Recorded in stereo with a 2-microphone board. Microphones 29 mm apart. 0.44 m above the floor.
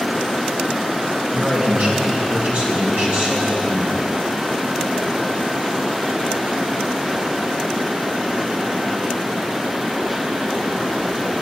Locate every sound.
1.3 s a man speaking: 65° right (ahead or behind), 4 m